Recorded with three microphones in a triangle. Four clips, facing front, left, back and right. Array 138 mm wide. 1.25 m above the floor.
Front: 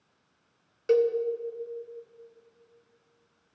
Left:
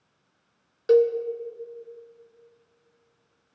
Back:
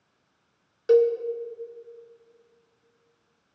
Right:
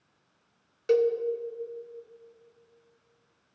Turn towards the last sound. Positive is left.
turn(degrees=130)